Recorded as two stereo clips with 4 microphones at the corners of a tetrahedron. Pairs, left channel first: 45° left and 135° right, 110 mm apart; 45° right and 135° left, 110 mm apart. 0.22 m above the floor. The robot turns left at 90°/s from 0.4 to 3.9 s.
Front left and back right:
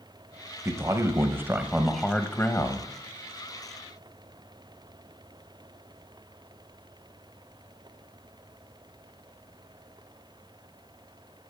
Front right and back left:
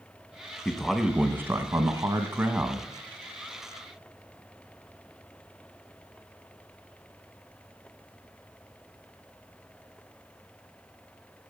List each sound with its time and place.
0.7 s a man speaking: 110° right, 1.0 m; by 2.9 s 50° left, 1.0 m